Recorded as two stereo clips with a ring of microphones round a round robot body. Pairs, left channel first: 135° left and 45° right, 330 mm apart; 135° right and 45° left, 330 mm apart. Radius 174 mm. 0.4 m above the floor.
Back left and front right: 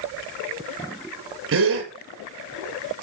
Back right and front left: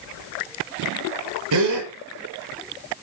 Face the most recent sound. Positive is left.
turn(degrees=10)